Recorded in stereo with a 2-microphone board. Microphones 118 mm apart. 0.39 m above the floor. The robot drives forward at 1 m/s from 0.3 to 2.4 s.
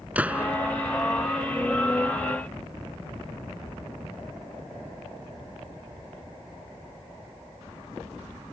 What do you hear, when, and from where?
0.1 s a gunshot: 10° right (ahead or behind)